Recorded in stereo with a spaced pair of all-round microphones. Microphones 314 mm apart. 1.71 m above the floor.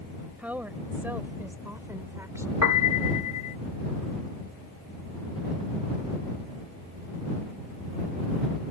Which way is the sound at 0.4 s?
5° right (ahead or behind).